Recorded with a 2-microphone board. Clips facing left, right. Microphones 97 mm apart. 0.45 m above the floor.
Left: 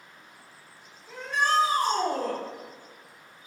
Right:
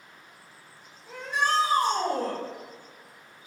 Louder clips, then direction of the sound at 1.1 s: Left 1 dB; 55° right (ahead or behind).